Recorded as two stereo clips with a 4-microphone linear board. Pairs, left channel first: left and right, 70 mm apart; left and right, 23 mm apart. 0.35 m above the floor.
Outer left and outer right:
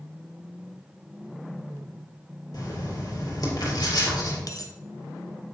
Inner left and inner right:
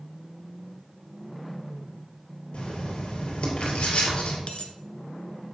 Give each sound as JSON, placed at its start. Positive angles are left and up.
{"t": 2.5, "sound": "writing", "side_deg": 65, "distance_m": 3.0}
{"t": 4.5, "sound": "a dropped coin", "side_deg": 60, "distance_m": 1.0}